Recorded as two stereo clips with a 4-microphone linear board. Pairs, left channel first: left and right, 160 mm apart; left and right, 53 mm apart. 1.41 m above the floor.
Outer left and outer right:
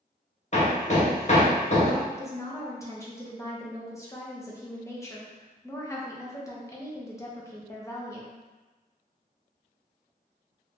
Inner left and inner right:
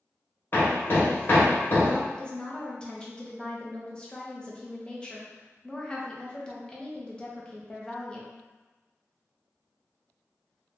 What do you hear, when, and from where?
0.5 s hammering: 45° left (ahead or behind), 0.8 m
2.1 s a woman speaking: 20° left (ahead or behind), 0.7 m